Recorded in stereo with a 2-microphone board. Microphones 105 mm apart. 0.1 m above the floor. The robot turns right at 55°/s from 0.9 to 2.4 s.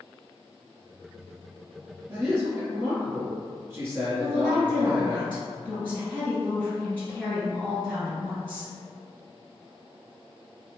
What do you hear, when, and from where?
2.1 s a man speaking: 25° right (ahead or behind), 1.5 m
4.2 s a woman speaking: 15° left (ahead or behind), 2.0 m